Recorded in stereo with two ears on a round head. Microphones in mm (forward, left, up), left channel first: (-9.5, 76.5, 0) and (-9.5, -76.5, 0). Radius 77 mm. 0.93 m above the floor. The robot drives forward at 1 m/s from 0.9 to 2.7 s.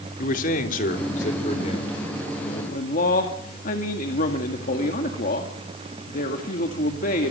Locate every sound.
0.2 s a man speaking: 50° left (ahead or behind), 2.5 m; by 2.6 s 30° left (ahead or behind), 4 m
2.7 s a man speaking: 50° left (ahead or behind), 1.8 m